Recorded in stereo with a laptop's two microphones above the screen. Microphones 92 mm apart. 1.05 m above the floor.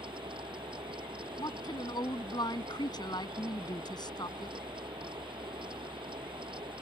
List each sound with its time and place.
0.0 s a fan: 65° right (ahead or behind)
1.4 s a woman speaking: 50° left (ahead or behind)